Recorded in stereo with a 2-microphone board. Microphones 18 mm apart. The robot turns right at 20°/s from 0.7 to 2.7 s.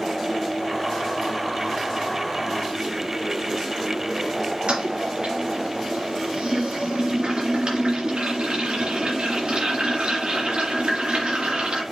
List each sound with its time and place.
4.7 s a toilet flushing: 75° right (ahead or behind), 3 m